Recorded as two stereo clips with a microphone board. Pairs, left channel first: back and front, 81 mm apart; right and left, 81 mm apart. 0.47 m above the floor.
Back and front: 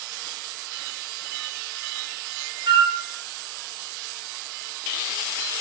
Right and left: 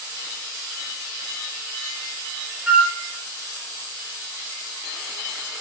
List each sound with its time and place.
2.7 s a flute: 5° left, 0.5 m